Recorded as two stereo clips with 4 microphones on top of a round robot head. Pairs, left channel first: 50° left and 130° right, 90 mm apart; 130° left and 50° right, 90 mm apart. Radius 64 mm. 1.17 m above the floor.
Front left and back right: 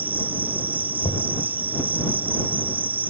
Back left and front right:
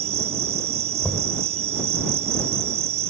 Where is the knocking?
45° left.